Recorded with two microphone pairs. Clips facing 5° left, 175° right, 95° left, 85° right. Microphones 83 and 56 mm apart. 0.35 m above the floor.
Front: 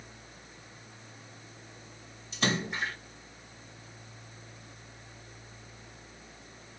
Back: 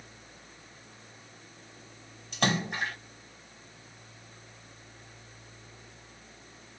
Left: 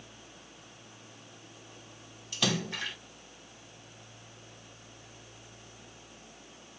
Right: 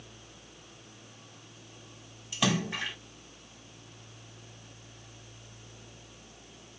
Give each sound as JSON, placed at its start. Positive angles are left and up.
{"t": 2.3, "sound": "a splash", "azimuth_deg": -160, "distance_m": 2.0}